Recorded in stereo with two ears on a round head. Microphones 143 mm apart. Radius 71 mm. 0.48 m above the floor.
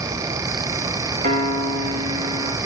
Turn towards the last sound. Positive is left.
turn(degrees=-45)  # may be behind; listen again after turning